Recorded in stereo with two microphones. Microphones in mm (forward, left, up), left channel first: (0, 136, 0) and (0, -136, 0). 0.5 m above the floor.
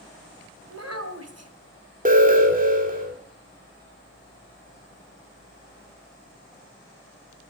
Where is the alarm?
30° right (ahead or behind), 2.5 m.